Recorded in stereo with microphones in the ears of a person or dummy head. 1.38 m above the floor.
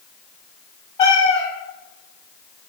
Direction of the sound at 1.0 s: 30° left (ahead or behind).